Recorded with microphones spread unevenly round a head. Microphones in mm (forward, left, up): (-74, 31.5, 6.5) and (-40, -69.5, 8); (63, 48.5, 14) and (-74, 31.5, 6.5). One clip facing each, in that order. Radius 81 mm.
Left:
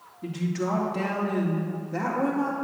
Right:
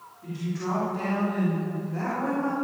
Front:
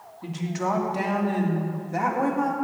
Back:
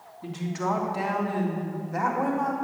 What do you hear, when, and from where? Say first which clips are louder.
0.2 s a woman speaking: left 3 dB, front 1 dB; 85° left, 3 m; by 2.5 s 70° left, 4 m